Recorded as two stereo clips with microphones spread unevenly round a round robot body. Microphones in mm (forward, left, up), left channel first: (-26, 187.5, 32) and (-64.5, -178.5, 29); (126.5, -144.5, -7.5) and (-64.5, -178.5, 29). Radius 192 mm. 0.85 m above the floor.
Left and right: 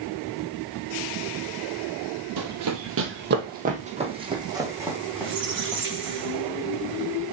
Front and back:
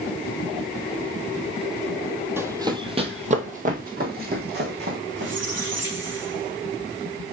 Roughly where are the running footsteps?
Right.